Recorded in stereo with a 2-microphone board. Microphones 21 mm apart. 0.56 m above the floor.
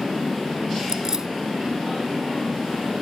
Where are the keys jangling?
30° right (ahead or behind).